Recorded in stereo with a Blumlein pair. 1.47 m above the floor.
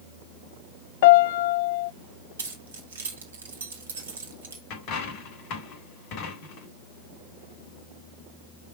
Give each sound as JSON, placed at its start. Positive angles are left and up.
{"t": 1.0, "sound": "a piano", "azimuth_deg": 50, "distance_m": 0.5}
{"t": 2.4, "sound": "keys jangling", "azimuth_deg": -70, "distance_m": 3.5}
{"t": 4.7, "sound": "a dropped coin", "azimuth_deg": 40, "distance_m": 3.0}